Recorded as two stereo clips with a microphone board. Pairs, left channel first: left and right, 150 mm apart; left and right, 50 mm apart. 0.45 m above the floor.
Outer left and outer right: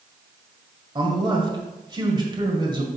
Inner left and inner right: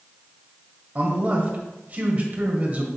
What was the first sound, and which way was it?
A man speaking, 30° right (ahead or behind).